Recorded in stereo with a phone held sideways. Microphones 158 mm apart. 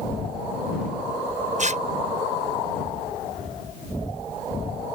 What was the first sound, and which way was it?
Tearing paper, 50° right (ahead or behind).